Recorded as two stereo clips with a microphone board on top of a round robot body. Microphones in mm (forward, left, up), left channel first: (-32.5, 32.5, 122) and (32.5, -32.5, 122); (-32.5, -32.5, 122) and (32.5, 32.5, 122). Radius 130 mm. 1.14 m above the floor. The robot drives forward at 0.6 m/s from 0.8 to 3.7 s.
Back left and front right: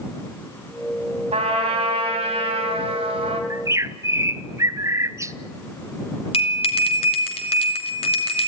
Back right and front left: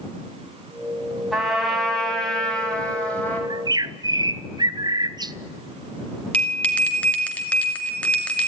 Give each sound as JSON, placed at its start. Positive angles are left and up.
{"t": 1.3, "sound": "a trumpet", "azimuth_deg": -45, "distance_m": 3.5}
{"t": 3.5, "sound": "a bird", "azimuth_deg": 10, "distance_m": 0.9}
{"t": 6.3, "sound": "a bell", "azimuth_deg": 150, "distance_m": 2.5}